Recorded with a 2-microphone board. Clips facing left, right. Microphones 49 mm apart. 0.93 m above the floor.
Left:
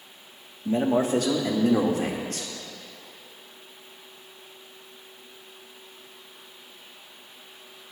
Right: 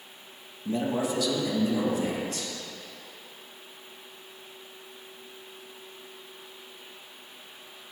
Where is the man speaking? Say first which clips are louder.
Left 5 dB; 30° left (ahead or behind), 1.1 m; by 2.5 s 70° left (ahead or behind), 2.5 m.